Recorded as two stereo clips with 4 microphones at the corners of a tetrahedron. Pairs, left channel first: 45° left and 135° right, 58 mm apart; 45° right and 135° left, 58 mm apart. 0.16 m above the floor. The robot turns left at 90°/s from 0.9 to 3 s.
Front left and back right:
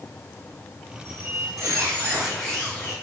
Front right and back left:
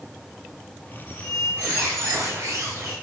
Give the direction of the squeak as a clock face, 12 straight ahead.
4 o'clock.